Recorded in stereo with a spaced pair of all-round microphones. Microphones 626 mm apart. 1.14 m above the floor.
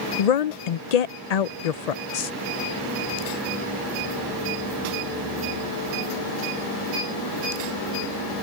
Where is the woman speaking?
80° left.